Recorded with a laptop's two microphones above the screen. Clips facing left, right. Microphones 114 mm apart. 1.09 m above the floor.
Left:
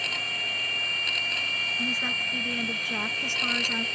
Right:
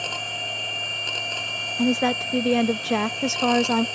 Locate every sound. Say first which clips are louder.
0.0 s a machine running: right 5 dB; 30° right (ahead or behind)
1.8 s a woman speaking: right 14 dB; 80° right